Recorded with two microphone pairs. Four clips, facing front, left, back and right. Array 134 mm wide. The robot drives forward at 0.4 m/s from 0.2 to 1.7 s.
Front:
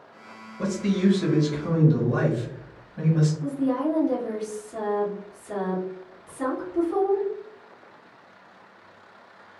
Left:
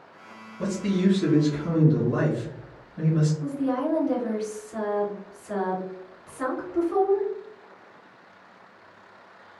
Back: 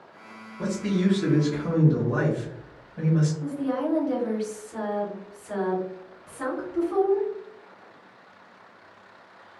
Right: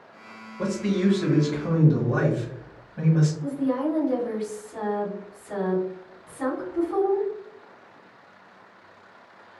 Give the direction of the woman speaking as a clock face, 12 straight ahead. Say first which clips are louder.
Right 1 dB, front 3 dB; 8 o'clock.